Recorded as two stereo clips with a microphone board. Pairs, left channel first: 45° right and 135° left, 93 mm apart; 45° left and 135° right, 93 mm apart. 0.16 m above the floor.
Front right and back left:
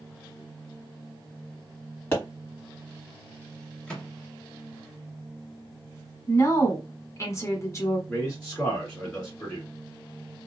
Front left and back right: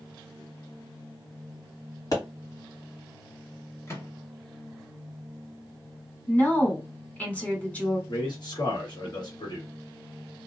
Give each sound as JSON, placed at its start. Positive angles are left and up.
{"t": 2.1, "sound": "a pop", "azimuth_deg": 15, "distance_m": 2.0}
{"t": 3.9, "sound": "a microwave", "azimuth_deg": 25, "distance_m": 1.0}
{"t": 6.3, "sound": "a woman speaking", "azimuth_deg": -20, "distance_m": 1.1}
{"t": 8.1, "sound": "a man speaking", "azimuth_deg": 35, "distance_m": 1.7}